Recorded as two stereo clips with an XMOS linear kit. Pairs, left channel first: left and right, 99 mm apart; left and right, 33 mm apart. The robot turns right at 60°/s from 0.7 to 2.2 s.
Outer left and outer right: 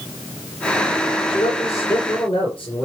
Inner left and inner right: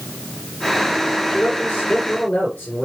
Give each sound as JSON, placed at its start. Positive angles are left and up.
{"t": 1.3, "sound": "a man speaking", "azimuth_deg": 60, "distance_m": 4.5}